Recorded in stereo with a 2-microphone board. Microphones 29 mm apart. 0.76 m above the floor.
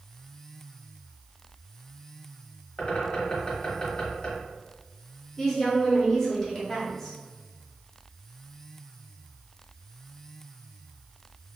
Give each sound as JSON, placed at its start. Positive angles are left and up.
{"t": 2.8, "sound": "a bird", "side_deg": 35, "distance_m": 1.1}
{"t": 5.4, "sound": "a woman speaking", "side_deg": 15, "distance_m": 1.1}